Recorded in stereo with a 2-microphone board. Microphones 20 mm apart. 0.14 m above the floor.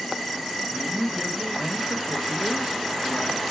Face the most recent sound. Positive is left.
turn(degrees=-30)  # may be behind; listen again after turning